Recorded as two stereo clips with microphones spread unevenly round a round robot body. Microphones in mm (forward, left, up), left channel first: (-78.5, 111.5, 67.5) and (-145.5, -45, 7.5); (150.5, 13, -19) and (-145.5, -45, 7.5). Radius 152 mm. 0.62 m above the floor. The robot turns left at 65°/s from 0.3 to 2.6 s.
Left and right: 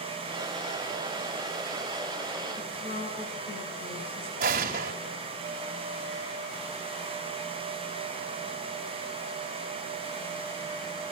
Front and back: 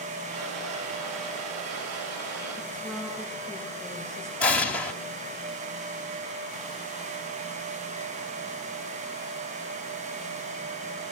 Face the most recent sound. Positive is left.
turn(degrees=-75)